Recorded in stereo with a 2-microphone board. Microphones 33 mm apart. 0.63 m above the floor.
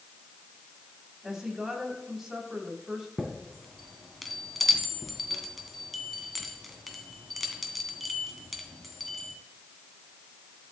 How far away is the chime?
About 2 m.